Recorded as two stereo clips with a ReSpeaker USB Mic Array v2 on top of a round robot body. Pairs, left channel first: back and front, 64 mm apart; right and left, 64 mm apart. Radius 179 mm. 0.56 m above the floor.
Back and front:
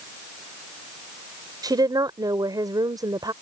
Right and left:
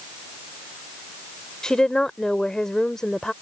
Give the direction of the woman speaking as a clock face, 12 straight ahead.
12 o'clock.